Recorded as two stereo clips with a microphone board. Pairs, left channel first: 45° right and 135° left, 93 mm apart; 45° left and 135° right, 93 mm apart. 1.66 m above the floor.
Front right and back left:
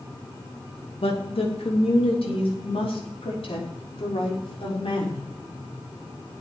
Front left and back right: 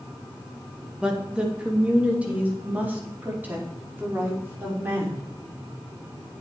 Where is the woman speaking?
55° right, 2.5 m; by 5.2 s 65° right, 6 m.